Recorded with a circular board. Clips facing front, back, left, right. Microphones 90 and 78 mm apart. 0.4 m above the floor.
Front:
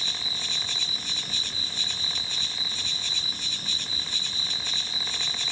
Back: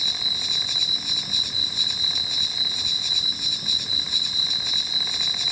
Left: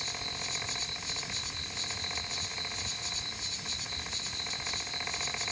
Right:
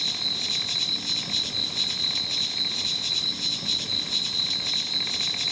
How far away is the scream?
I don't hear a scream.